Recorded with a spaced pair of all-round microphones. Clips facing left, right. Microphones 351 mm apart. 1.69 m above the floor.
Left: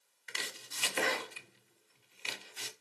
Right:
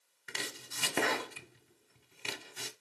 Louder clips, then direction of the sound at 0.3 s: Right 4 dB; 55° right (ahead or behind).